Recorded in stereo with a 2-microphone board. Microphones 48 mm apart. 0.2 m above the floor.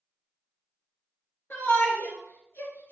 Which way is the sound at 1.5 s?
55° left (ahead or behind).